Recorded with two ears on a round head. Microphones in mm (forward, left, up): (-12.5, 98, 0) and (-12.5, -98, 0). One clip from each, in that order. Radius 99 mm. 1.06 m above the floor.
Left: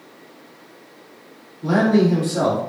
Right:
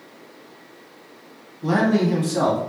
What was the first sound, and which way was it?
A man speaking, 25° right (ahead or behind).